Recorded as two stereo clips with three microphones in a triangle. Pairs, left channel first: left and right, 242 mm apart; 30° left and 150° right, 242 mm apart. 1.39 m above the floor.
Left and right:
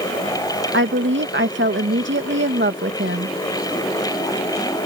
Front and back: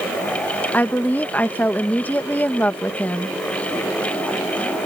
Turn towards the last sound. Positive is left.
turn(degrees=-55)